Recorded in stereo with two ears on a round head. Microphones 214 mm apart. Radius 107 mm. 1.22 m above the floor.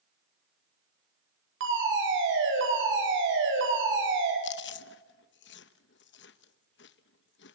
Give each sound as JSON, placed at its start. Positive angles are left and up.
{"t": 1.6, "sound": "a fire alarm", "side_deg": -55, "distance_m": 9.0}
{"t": 4.4, "sound": "chewing", "side_deg": 50, "distance_m": 0.9}